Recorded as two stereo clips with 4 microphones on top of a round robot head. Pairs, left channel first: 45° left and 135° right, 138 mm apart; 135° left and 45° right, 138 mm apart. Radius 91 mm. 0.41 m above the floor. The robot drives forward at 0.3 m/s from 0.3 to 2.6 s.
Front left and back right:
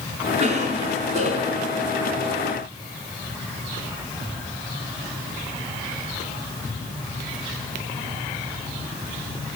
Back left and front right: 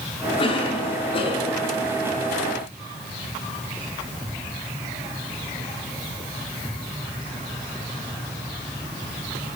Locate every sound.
0.4 s a cough: 175° right, 6 m